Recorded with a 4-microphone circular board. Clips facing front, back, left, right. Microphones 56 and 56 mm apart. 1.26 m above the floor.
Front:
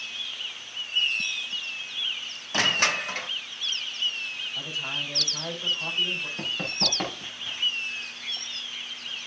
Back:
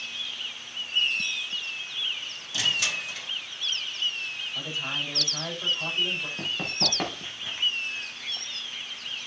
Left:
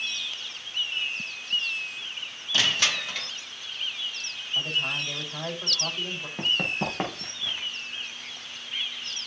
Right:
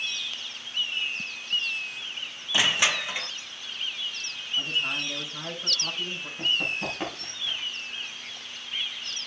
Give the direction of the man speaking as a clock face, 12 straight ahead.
8 o'clock.